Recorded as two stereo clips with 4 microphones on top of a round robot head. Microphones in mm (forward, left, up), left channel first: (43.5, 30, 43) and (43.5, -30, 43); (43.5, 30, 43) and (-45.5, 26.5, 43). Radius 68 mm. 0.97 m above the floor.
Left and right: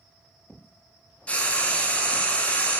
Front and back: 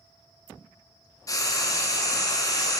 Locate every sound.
1.3 s frying: 30° left, 0.8 m